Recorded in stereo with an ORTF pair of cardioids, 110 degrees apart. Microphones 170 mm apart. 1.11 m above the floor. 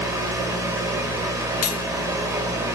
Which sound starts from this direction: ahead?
A fan, at 0.0 s.